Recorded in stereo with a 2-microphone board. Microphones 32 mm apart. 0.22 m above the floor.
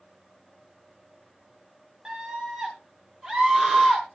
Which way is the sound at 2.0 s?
20° right (ahead or behind).